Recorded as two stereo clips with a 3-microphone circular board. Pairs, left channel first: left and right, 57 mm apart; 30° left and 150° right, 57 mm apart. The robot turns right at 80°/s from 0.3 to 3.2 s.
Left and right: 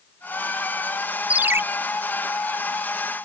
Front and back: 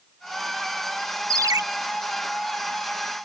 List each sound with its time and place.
1.3 s a ringtone: 160° right; by 1.6 s 135° right